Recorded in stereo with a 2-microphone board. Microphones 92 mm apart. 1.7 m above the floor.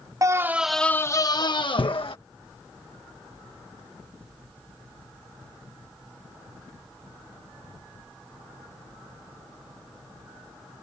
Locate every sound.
0.2 s a scream: 35° right (ahead or behind); by 2.2 s 65° left (ahead or behind)